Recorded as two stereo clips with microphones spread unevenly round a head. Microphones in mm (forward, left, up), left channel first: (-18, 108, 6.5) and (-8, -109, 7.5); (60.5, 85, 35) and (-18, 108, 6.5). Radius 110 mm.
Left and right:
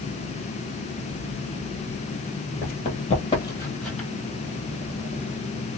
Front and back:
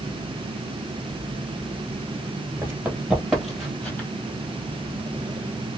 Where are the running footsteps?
90° left, 1.6 m; by 4.1 s straight ahead, 1.5 m.